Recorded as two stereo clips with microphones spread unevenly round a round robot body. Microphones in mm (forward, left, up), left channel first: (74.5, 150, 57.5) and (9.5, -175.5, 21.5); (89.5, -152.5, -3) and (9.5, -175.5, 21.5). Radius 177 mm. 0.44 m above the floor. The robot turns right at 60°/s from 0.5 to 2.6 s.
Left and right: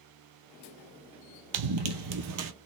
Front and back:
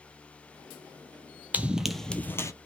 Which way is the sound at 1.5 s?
110° right.